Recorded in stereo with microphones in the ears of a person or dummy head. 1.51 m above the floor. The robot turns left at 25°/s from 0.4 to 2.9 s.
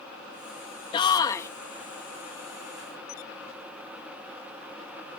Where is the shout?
30° left (ahead or behind); by 1.5 s 20° left (ahead or behind).